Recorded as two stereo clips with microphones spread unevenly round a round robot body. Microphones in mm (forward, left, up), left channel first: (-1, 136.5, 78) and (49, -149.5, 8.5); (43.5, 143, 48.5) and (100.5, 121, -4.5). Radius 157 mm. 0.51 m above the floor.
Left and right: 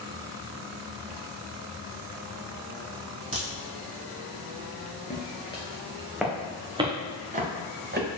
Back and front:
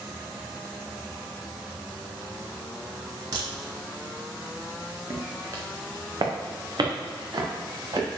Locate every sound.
3.3 s a crack: 10° right, 4 m
5.1 s footsteps: 40° left, 2.5 m; by 8.2 s 25° right, 4 m